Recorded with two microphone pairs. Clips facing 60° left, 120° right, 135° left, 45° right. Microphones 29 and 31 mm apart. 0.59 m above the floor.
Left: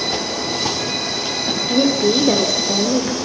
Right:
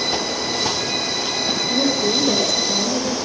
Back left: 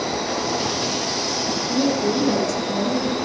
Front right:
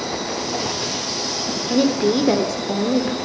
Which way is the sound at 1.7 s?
5° right.